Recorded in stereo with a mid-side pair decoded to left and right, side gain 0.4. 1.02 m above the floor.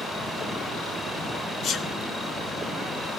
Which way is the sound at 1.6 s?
65° left.